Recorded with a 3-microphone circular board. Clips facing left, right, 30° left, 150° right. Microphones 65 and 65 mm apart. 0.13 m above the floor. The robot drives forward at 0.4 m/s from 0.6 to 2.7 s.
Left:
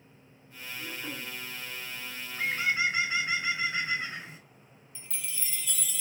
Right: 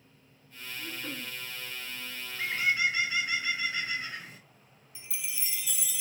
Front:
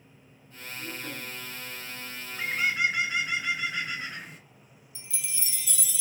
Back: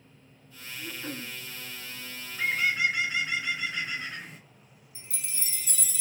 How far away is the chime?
About 0.7 m.